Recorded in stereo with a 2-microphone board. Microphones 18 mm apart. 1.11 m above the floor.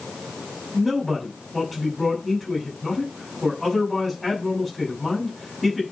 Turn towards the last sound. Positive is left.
turn(degrees=-5)  # may be behind; listen again after turning